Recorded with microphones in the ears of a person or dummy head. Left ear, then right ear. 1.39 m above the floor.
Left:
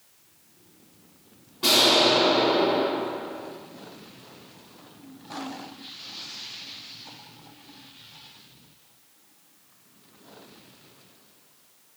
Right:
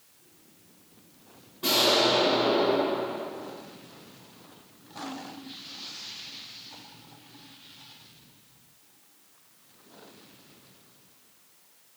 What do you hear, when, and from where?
1.6 s an explosion: 30° left (ahead or behind), 5.5 m